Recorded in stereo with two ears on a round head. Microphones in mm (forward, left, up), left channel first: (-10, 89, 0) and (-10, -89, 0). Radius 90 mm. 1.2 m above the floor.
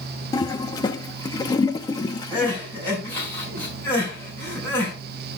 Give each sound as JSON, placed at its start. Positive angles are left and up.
{"t": 0.3, "sound": "a toilet flushing", "side_deg": 20, "distance_m": 0.9}
{"t": 2.3, "sound": "crying", "side_deg": 10, "distance_m": 5.5}